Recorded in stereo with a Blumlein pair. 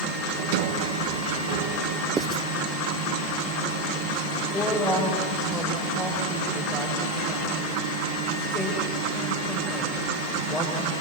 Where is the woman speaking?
10° left, 6.5 m.